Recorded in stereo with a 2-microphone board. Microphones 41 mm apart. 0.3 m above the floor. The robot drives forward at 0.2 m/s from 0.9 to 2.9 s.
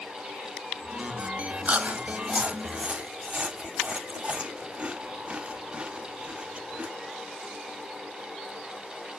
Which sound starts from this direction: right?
Chewing, at 1.6 s.